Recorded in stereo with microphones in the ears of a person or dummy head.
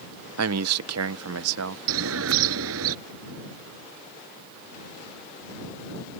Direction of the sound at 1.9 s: 75° right (ahead or behind).